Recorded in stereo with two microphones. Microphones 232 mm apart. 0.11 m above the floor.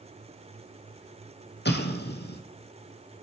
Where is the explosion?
45° left (ahead or behind), 1.2 m.